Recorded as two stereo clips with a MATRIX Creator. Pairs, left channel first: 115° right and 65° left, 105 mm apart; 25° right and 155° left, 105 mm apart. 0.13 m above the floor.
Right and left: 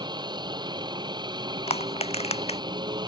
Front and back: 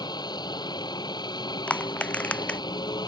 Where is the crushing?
100° right.